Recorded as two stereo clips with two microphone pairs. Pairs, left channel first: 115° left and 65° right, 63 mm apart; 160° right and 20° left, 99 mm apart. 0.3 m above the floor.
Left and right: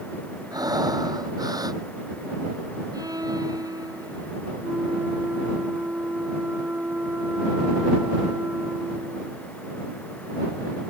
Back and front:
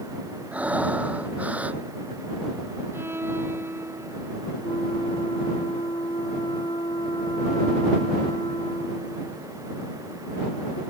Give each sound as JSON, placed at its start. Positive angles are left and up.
{"t": 0.5, "sound": "breathing", "azimuth_deg": -55}
{"t": 2.9, "sound": "a violin", "azimuth_deg": -50}
{"t": 4.6, "sound": "a flute", "azimuth_deg": -125}